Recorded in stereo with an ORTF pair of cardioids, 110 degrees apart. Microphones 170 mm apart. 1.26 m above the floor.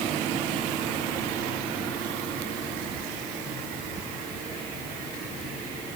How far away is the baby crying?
No baby crying in this recording.